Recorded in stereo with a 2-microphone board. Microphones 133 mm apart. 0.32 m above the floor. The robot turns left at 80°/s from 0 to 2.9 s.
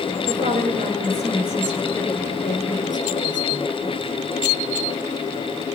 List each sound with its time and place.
0.3 s a woman speaking: 70° right, 6 m; by 4.0 s 75° left, 6 m